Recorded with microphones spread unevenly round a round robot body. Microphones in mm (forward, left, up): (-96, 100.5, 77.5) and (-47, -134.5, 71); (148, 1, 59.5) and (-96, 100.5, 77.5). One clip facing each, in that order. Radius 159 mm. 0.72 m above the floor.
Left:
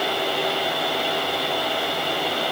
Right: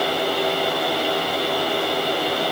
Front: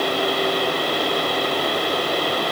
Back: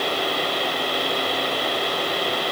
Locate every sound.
Only background noise.